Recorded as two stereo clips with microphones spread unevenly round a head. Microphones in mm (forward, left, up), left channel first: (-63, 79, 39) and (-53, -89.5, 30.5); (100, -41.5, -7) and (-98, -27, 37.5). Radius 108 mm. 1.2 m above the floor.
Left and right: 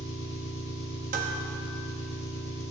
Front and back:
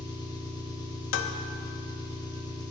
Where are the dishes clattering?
30° right, 0.9 m.